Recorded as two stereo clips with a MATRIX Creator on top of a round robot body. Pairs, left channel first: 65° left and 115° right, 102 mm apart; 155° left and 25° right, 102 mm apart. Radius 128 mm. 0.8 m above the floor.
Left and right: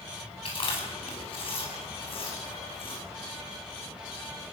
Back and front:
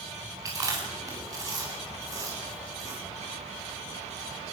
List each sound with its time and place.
0.5 s chewing: 35° left, 8 m